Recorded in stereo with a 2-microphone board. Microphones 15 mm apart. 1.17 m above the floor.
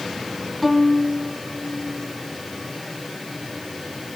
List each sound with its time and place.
0.6 s a violin: 5° left (ahead or behind), 3 m